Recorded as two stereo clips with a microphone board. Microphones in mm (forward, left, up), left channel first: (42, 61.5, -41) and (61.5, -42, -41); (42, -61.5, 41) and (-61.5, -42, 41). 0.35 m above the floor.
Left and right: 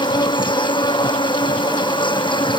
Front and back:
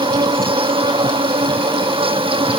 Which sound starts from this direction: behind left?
An insect, at 0.0 s.